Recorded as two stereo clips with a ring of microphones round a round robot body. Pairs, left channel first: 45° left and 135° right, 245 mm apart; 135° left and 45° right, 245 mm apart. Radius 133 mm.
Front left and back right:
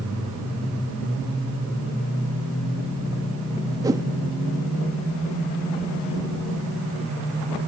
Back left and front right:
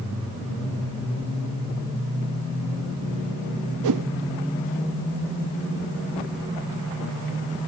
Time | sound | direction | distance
3.8 | a whoosh | 60° right | 0.5 m